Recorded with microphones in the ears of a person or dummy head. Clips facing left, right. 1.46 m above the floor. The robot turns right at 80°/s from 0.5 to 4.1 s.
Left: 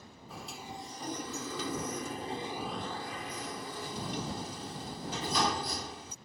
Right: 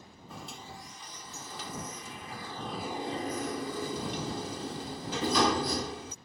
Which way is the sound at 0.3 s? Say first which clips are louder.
Left 1 dB; straight ahead.